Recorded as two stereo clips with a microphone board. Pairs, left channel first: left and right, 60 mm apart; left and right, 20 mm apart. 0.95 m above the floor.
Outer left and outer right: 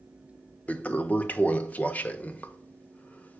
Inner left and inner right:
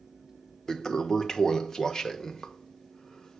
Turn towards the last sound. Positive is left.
turn(degrees=25)  # may be behind; listen again after turning